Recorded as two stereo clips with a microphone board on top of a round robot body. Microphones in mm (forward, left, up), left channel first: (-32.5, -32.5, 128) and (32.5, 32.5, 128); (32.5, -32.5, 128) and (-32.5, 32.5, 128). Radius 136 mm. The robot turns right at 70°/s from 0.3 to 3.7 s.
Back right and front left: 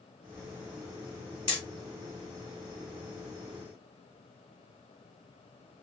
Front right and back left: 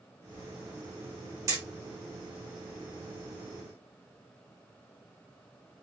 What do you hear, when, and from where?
1.5 s hammering: 170° right, 0.7 m; by 1.6 s 160° right, 0.7 m